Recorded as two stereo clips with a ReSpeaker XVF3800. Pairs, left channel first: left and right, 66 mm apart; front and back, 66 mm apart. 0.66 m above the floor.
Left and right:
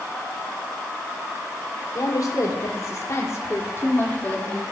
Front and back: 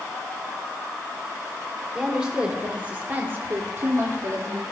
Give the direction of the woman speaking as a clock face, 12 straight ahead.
9 o'clock.